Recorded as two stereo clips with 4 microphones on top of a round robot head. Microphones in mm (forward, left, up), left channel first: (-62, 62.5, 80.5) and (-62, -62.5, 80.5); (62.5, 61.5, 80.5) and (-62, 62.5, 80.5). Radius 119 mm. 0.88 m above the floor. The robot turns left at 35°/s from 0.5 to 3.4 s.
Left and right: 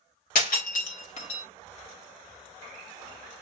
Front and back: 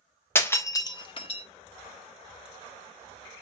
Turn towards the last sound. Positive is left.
turn(degrees=-30)